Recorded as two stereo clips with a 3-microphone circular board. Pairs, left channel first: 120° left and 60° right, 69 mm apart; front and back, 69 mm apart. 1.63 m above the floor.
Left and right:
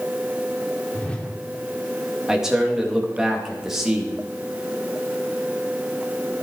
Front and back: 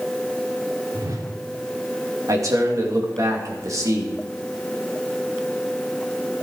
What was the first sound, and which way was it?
A whoosh, 170° right.